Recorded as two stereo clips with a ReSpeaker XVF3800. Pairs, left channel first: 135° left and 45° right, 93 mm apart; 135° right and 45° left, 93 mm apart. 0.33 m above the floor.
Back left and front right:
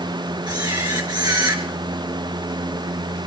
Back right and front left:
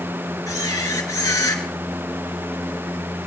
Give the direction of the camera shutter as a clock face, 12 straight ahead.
3 o'clock.